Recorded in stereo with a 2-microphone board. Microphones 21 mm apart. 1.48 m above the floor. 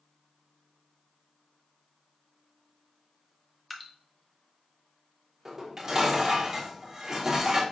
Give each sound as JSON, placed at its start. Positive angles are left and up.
{"t": 3.7, "sound": "dripping", "side_deg": 5, "distance_m": 0.7}
{"t": 5.5, "sound": "dishes clattering", "side_deg": -15, "distance_m": 1.0}